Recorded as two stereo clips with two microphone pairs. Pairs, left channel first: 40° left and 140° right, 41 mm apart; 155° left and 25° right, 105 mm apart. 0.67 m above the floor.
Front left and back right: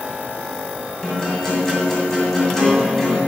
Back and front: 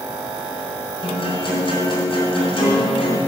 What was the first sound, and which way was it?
A guitar, 120° left.